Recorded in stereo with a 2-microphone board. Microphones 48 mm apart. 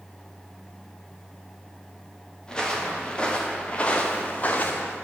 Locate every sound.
2.5 s footsteps: 15° left (ahead or behind), 3 m; by 5.0 s 40° left (ahead or behind), 1.8 m